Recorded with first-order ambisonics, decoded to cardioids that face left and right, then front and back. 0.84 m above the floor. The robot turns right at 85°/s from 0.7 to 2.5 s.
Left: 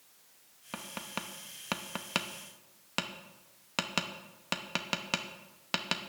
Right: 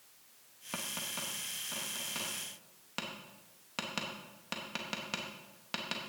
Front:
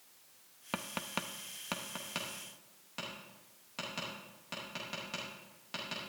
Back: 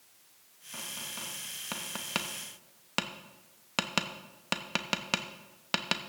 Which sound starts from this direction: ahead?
Tapping, at 0.7 s.